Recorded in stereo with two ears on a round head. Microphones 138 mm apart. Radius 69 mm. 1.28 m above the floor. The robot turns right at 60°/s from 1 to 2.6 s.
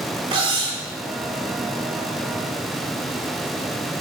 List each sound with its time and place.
0.3 s cutlery clinking: 30° right (ahead or behind), 2 m